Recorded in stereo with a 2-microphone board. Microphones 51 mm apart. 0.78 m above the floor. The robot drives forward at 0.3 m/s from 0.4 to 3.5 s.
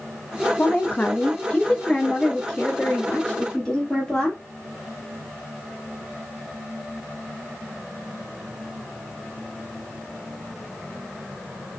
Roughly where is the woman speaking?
Left.